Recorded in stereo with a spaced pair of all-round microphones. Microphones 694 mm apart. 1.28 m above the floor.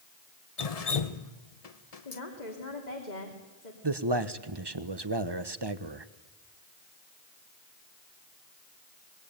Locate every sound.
0.6 s dripping: 60° left (ahead or behind), 1.1 m
2.0 s a woman speaking: 80° left, 3.5 m
3.8 s a man speaking: 35° right (ahead or behind), 1.2 m